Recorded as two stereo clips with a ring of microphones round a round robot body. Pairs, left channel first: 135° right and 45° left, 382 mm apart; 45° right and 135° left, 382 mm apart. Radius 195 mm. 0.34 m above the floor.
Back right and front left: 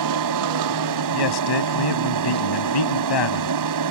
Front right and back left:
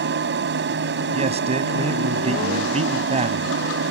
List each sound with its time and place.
0.0 s an aircraft: 75° left
1.1 s a man speaking: 150° right